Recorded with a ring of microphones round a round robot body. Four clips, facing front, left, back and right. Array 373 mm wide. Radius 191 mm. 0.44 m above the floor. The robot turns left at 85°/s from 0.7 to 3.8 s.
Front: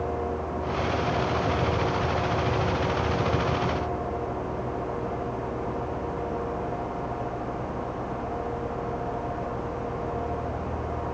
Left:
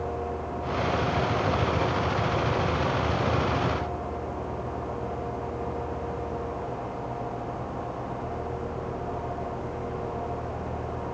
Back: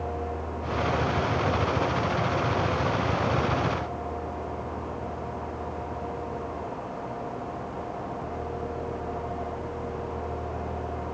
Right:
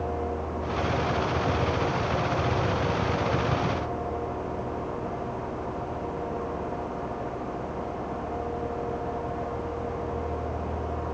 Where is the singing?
I don't hear singing.